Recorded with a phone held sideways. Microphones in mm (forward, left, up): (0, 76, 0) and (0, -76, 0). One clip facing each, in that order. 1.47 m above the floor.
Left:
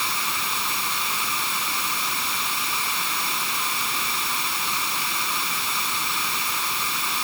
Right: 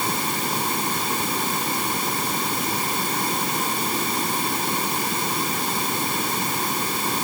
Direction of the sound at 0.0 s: 45° right (ahead or behind).